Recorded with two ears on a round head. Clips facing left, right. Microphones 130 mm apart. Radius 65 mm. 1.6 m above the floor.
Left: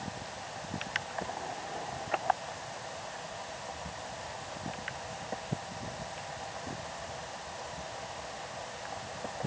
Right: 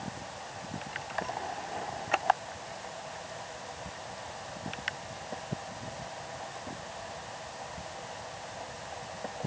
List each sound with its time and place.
Only background noise.